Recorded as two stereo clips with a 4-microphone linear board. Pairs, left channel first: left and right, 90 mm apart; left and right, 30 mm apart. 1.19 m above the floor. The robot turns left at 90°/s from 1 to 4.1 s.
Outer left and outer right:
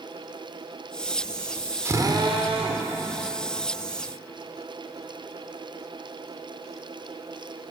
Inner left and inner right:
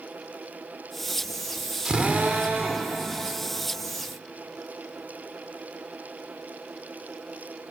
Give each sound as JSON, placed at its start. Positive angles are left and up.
{"t": 1.9, "sound": "a drill", "azimuth_deg": -30, "distance_m": 3.0}